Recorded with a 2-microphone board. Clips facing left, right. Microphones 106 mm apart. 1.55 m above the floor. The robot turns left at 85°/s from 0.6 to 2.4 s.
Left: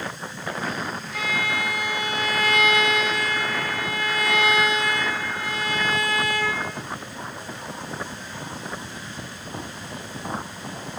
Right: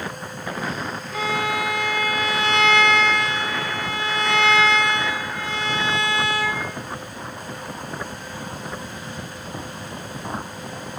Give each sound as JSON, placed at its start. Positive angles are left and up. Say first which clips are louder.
{"t": 1.1, "sound": "a violin", "louder": "right 5 dB", "azimuth_deg": -130, "distance_m": 1.7}